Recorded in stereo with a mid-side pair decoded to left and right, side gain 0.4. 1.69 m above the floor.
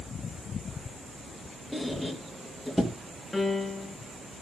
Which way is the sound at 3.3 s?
15° left.